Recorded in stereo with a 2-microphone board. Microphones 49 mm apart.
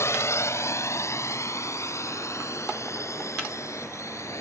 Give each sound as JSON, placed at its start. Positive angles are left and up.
{"t": 0.0, "sound": "a drone", "side_deg": 65}